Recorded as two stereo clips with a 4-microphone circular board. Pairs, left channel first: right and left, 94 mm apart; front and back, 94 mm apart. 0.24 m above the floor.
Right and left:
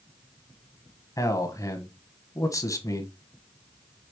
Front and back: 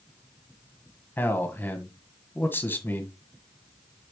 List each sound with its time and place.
1.2 s a man speaking: 60° right, 1.4 m